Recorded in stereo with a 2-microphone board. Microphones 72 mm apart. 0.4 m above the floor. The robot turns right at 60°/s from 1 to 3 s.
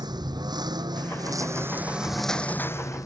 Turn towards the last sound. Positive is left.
turn(degrees=50)